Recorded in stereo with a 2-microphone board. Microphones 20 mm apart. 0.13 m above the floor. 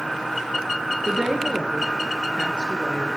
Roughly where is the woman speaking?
Right.